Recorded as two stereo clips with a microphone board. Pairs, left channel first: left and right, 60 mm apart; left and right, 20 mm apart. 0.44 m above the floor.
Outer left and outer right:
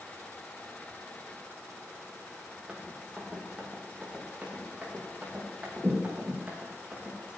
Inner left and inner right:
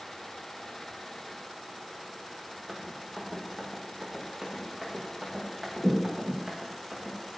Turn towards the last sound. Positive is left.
turn(degrees=-25)  # may be behind; listen again after turning